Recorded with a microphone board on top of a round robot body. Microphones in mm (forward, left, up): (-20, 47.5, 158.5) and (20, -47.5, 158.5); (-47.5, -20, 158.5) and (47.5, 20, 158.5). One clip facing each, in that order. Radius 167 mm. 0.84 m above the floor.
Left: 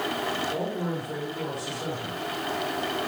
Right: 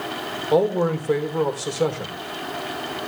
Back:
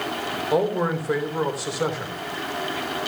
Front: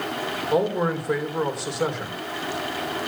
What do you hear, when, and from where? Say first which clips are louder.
0.5 s a man speaking: right 10 dB, even; 70° right, 3.5 m